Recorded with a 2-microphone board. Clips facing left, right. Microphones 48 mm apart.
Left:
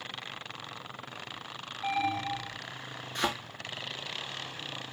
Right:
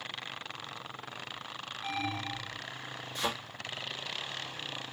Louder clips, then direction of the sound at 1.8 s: Left 6 dB; 30° left (ahead or behind).